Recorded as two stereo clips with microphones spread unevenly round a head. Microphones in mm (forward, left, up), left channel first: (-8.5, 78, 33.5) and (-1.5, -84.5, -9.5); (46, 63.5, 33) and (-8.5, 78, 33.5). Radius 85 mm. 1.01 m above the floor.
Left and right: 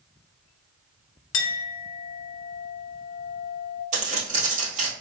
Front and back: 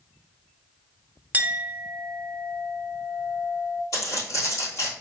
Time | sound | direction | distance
1.3 | a clink | 100° left | 0.6 m
3.9 | footsteps | 40° right | 1.7 m